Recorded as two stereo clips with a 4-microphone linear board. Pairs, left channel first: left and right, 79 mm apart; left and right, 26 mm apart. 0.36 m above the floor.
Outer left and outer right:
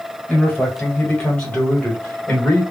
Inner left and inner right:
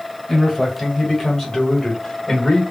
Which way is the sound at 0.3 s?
5° left (ahead or behind).